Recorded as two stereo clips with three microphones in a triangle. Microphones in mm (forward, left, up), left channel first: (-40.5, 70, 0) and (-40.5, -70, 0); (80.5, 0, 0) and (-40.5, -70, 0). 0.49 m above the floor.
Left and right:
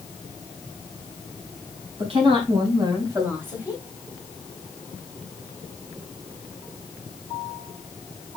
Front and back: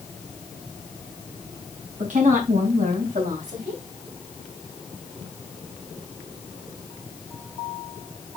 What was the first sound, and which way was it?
A woman speaking, 135° right.